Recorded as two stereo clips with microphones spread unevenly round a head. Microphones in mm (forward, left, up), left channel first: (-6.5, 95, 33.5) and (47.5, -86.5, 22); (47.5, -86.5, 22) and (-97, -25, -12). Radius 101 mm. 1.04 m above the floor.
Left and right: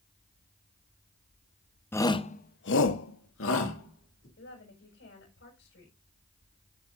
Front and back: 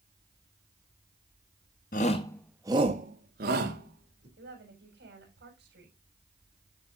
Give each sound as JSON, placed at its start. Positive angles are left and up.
{"t": 1.9, "sound": "a shout", "azimuth_deg": 30, "distance_m": 1.2}
{"t": 4.4, "sound": "a woman speaking", "azimuth_deg": 135, "distance_m": 6.5}